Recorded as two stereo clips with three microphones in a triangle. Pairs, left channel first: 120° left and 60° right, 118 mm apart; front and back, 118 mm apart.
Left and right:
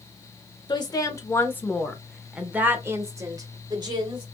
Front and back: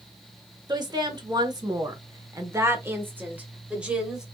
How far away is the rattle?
No rattle in this recording.